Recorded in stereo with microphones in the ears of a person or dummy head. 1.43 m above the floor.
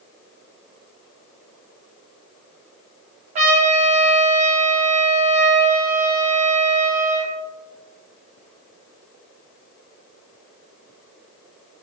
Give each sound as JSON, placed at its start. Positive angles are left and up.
{"t": 3.4, "sound": "a trumpet", "side_deg": -40, "distance_m": 2.5}